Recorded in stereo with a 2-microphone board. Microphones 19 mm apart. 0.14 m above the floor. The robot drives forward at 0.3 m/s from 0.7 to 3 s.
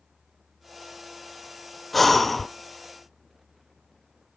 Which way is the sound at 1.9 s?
10° left (ahead or behind).